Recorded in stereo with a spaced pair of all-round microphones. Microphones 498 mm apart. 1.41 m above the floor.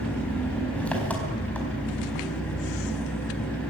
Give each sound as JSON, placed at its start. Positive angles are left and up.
{"t": 0.0, "sound": "an engine running", "side_deg": 5, "distance_m": 4.5}